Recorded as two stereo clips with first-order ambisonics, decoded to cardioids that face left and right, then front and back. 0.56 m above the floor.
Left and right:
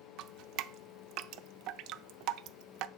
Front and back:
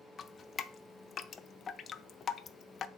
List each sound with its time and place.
0.2 s dripping: 65° right, 0.5 m